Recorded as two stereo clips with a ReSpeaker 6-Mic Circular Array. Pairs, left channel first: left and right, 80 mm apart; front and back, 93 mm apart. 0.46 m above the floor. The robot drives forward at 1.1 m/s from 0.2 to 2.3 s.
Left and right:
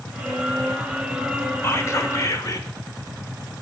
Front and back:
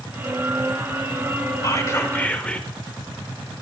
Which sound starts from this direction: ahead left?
Whispering, at 1.6 s.